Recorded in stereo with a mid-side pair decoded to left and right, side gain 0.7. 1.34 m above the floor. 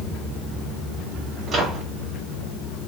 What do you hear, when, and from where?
1.5 s a microwave: 35° right, 1.5 m